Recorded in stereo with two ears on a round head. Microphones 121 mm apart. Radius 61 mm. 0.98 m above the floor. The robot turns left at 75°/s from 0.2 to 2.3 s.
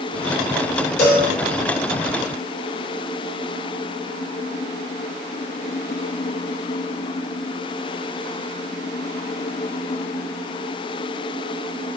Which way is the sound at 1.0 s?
55° left (ahead or behind).